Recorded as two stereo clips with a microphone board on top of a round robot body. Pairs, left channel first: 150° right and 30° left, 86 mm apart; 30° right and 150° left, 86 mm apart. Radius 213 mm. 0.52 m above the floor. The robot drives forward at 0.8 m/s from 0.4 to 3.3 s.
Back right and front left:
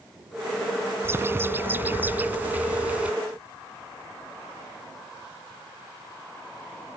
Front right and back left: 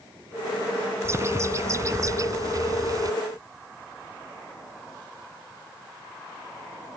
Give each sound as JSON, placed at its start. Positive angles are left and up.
{"t": 1.0, "sound": "a bird", "azimuth_deg": 95}